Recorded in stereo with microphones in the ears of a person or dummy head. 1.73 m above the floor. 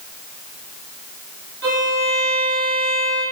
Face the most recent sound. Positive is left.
turn(degrees=-60)  # may be behind; listen again after turning